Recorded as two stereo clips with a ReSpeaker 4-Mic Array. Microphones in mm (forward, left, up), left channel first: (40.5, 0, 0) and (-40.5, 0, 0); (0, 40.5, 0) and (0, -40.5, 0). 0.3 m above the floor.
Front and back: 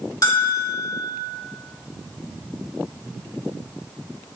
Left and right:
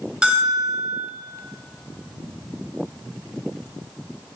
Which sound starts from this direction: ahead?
A bell, at 0.2 s.